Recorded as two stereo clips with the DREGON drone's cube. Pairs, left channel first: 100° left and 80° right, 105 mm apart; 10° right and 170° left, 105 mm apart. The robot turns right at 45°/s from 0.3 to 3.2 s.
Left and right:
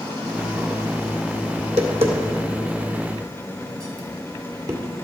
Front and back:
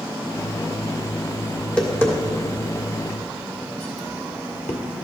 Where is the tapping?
100° right, 1.9 m; by 4.8 s 25° right, 1.9 m.